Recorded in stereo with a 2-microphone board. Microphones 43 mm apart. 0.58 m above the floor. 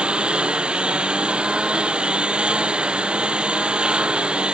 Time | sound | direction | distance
0.0 | a lawn mower | 20° right (ahead or behind) | ?